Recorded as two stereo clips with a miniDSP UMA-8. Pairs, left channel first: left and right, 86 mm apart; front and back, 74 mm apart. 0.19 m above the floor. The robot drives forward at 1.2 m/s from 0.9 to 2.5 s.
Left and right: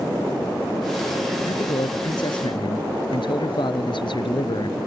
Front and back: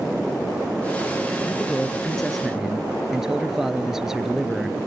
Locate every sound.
1.4 s a man speaking: 65° left; by 4.8 s 95° left